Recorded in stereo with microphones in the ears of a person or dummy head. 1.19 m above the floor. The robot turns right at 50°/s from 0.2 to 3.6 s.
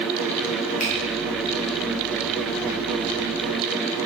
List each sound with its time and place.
0.8 s a finger snap: 40° left (ahead or behind), 1.3 m; by 0.9 s 50° left (ahead or behind), 1.3 m